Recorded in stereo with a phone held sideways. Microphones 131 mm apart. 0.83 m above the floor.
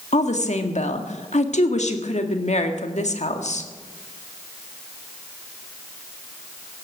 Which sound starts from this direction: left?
A woman speaking, at 0.1 s.